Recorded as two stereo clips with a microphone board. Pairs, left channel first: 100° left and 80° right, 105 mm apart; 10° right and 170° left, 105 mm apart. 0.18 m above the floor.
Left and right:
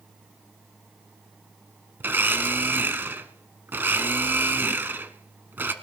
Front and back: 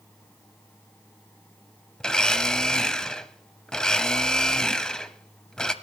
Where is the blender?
80° right, 0.7 m.